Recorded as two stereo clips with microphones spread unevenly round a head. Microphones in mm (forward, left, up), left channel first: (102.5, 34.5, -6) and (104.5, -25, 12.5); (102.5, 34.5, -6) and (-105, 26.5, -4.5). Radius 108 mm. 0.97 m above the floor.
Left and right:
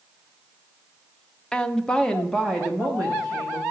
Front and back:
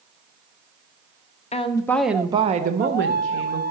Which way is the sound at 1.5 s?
45° left.